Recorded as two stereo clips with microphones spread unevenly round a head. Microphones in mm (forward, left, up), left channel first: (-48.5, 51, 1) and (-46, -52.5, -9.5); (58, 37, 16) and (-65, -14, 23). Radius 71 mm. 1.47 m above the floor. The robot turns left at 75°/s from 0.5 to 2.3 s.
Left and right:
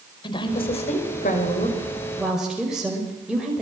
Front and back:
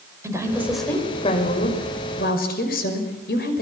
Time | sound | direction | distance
0.2 | a woman speaking | 135° left | 5.5 m